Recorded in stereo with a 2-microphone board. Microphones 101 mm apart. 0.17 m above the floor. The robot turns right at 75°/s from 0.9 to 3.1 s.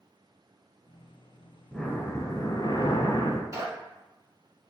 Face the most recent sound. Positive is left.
turn(degrees=-35)  # may be behind; listen again after turning